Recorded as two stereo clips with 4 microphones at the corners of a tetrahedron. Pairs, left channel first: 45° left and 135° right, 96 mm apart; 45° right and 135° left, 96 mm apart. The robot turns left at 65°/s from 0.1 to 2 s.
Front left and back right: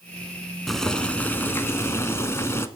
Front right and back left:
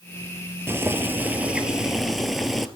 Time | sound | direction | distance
0.7 | boiling | 135° left | 0.8 m